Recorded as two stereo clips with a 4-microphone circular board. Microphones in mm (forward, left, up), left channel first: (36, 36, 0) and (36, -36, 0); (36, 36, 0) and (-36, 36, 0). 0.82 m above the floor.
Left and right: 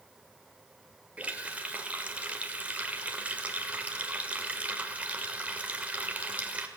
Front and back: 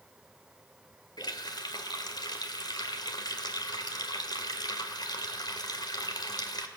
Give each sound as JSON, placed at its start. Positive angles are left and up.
{"t": 1.2, "sound": "a running tap", "azimuth_deg": -20, "distance_m": 2.0}